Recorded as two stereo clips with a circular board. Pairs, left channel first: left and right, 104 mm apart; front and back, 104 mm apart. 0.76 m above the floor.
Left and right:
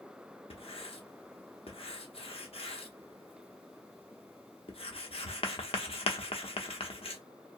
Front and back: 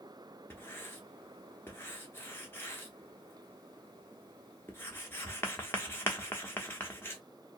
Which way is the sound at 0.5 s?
70° left.